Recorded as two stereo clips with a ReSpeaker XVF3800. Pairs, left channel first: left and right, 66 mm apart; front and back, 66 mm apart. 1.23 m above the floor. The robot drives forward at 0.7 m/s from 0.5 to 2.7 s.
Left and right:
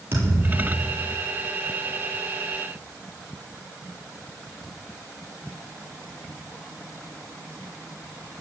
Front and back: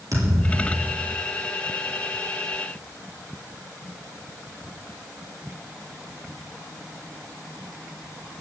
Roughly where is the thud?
Behind right.